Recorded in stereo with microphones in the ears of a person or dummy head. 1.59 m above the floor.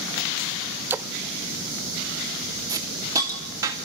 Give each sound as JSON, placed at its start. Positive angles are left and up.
{"t": 0.9, "sound": "a splash", "side_deg": -10, "distance_m": 0.6}
{"t": 2.7, "sound": "a hiss", "side_deg": -15, "distance_m": 2.5}